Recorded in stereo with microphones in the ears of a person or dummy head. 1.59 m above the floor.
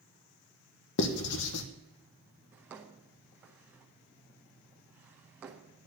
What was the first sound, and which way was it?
Writing, 70° left (ahead or behind).